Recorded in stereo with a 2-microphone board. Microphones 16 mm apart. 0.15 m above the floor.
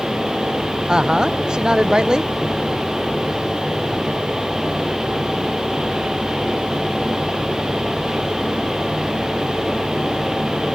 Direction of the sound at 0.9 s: 50° right (ahead or behind).